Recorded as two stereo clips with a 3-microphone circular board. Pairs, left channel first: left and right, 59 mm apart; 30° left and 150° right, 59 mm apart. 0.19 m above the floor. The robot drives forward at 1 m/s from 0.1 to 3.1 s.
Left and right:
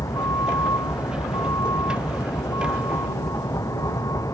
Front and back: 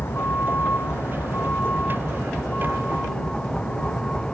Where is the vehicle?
85° left; by 4.3 s 105° left.